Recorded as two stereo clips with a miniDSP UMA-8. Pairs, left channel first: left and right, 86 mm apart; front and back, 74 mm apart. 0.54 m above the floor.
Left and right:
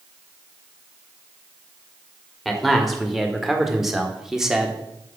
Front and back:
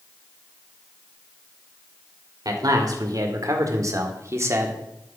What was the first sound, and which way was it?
A man speaking, straight behind.